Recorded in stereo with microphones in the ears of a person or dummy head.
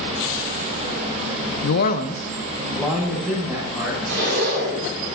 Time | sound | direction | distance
1.6 | a man speaking | 70° left (ahead or behind) | 0.6 m
4.1 | a zipper | 65° right (ahead or behind) | 3 m